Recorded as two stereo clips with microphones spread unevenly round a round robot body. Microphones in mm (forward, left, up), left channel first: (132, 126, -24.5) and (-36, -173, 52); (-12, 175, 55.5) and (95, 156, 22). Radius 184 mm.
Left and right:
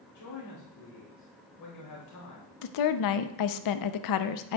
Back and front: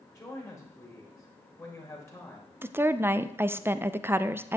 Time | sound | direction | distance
0.1 | a man speaking | 100° left | 4 m
2.6 | a woman speaking | 55° left | 0.6 m